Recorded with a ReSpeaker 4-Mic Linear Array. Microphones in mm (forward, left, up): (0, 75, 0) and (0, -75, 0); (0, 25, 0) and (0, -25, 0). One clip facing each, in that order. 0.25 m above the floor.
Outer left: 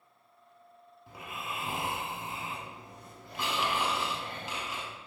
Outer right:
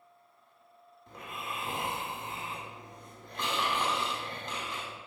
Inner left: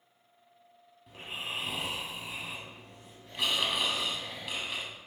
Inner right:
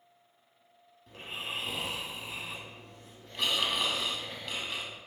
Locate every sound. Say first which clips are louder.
1.1 s snoring: even, even; 5° left (ahead or behind), 0.5 m